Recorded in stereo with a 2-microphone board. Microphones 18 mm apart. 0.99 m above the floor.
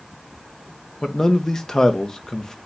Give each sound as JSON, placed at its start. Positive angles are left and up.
{"t": 1.0, "sound": "a man speaking", "side_deg": 30, "distance_m": 0.6}